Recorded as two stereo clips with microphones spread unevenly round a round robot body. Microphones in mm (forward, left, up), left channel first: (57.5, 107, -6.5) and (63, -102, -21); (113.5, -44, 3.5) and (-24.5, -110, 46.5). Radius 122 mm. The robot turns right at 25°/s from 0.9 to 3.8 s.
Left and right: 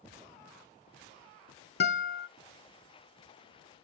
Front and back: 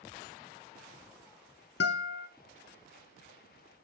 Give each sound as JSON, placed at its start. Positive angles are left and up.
{"t": 1.8, "sound": "a guitar", "azimuth_deg": 50, "distance_m": 0.6}